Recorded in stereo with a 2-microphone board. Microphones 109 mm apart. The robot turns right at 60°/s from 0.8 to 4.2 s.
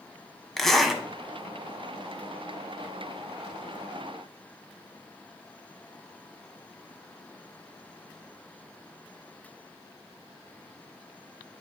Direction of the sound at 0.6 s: 5° left (ahead or behind).